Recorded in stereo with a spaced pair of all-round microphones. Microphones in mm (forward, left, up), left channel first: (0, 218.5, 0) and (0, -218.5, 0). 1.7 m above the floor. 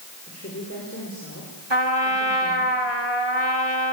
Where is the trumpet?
70° right (ahead or behind), 3 m.